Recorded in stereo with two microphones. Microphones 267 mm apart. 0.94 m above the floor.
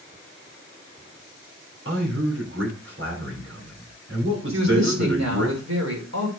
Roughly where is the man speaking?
Right.